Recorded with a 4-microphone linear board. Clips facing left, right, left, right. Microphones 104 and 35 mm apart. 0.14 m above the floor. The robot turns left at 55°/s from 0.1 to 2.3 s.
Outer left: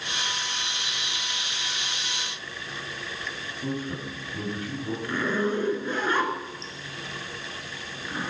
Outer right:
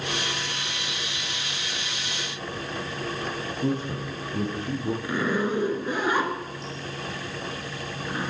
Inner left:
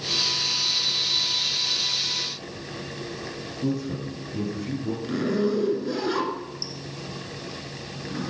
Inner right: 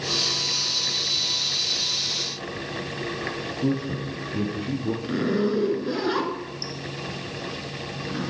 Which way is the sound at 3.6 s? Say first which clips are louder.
Outer right 3 dB, inner right 1 dB; 30° right (ahead or behind).